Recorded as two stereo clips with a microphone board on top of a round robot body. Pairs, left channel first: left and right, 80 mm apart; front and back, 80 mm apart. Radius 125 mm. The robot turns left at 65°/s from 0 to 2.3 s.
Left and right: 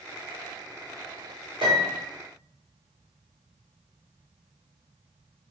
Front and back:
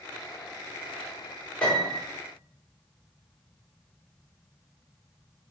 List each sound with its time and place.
1.6 s a piano: 80° right, 1.9 m; by 2.1 s 110° right, 1.9 m